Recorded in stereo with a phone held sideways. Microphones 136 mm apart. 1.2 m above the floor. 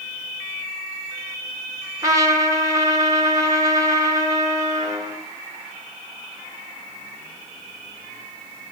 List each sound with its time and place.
2.0 s a trumpet: 25° right (ahead or behind), 3.5 m